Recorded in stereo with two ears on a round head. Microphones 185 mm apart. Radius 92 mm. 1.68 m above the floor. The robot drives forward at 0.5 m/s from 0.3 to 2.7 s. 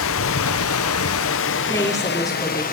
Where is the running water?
65° left (ahead or behind), 0.9 m; by 2.7 s 40° left (ahead or behind), 1.3 m.